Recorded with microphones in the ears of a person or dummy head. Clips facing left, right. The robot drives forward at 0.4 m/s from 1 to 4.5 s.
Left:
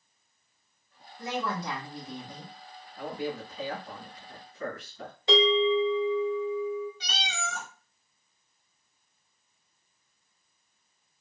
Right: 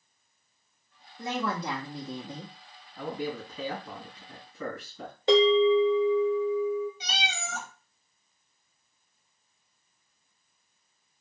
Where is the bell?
50° right (ahead or behind), 2.5 m.